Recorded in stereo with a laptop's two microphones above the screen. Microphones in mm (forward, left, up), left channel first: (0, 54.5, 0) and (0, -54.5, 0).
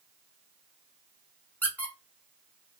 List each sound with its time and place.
1.6 s a squeak: 15° left (ahead or behind), 1.0 m